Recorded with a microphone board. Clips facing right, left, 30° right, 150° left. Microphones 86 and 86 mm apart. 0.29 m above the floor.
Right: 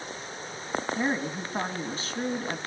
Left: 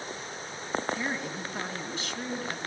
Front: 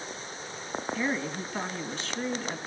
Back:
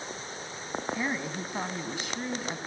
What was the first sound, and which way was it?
A woman speaking, 130° right.